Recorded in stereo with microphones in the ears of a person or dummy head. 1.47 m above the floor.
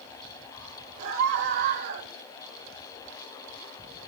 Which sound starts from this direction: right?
A scream, at 1.0 s.